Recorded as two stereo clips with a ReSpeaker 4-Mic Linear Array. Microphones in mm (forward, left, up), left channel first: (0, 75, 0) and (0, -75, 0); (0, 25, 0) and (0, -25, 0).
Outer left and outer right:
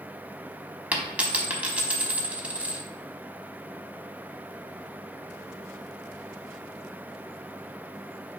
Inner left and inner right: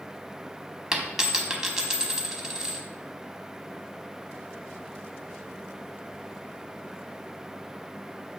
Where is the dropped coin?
10° right (ahead or behind), 0.7 m.